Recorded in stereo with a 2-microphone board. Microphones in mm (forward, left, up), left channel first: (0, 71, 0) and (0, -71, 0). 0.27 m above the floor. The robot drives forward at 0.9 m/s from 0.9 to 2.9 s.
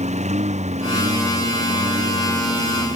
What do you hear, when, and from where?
0.0 s a lawn mower: 55° right (ahead or behind)